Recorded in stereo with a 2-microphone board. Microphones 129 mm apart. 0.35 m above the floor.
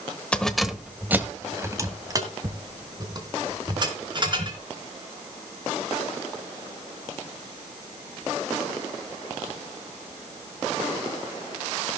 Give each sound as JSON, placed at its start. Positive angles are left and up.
{"t": 0.3, "sound": "keys jangling", "side_deg": 10, "distance_m": 1.0}